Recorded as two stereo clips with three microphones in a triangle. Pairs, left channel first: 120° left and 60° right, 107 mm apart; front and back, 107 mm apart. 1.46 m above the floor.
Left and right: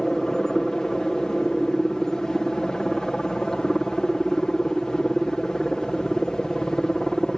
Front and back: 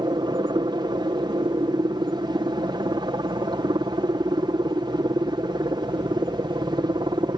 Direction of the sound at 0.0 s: 155° right.